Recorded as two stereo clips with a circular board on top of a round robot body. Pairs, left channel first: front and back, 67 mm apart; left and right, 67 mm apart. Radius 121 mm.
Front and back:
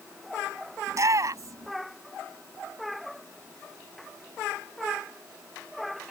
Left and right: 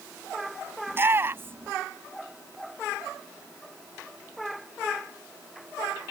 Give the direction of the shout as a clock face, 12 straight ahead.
5 o'clock.